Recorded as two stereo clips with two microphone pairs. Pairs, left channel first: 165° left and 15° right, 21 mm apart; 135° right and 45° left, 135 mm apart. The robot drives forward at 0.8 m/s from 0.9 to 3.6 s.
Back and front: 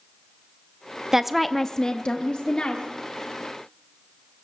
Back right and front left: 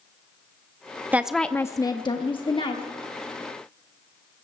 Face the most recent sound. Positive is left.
turn(degrees=180)